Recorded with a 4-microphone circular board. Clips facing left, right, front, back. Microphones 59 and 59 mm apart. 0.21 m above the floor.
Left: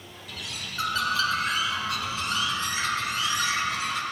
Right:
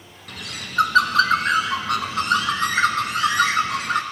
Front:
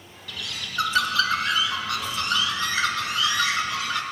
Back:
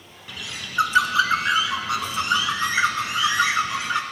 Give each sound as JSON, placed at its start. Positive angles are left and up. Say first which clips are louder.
{"t": 0.3, "sound": "a bird", "louder": "right 4 dB, even", "azimuth_deg": -110, "distance_m": 1.0}